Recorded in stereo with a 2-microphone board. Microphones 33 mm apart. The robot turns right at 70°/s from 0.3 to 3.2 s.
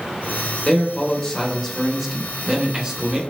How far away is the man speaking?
About 0.8 m.